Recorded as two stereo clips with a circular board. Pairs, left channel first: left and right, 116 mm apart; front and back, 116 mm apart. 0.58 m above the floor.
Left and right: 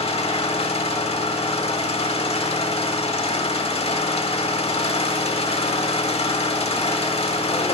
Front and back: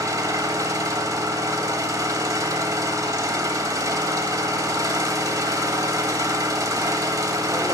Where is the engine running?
120° left, 1.0 m.